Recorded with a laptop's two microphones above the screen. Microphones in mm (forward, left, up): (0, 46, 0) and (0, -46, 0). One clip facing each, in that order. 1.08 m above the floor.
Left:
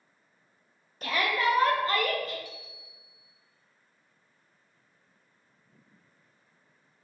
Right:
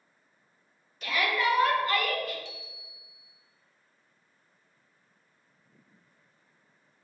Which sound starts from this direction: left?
A shout, at 1.0 s.